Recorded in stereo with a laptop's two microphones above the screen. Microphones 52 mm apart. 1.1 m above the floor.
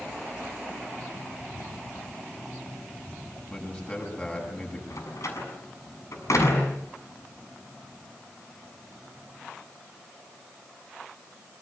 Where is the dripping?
No dripping in this recording.